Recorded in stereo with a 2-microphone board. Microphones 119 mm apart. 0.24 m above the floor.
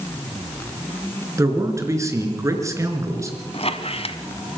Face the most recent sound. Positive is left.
turn(degrees=55)  # may be behind; listen again after turning